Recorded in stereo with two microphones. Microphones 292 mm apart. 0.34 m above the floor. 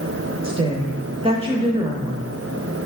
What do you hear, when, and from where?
0.4 s a woman speaking: 20° right (ahead or behind), 0.9 m